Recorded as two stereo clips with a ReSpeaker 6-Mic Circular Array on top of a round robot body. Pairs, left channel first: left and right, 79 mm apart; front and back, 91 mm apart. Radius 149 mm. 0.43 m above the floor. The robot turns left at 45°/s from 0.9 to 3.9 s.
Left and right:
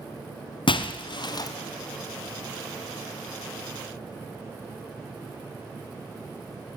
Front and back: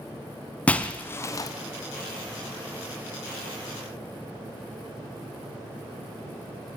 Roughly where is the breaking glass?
Left.